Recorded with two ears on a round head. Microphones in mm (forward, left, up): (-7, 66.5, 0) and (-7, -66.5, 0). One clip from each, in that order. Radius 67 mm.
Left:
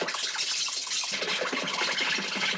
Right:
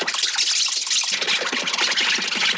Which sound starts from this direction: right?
An insect, at 0.0 s.